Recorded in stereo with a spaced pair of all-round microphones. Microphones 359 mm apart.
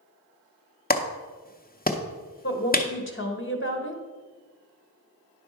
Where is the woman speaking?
35° left (ahead or behind), 1.3 m.